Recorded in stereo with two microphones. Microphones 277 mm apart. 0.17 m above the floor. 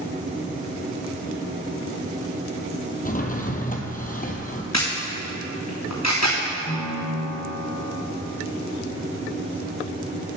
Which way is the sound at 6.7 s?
30° left (ahead or behind).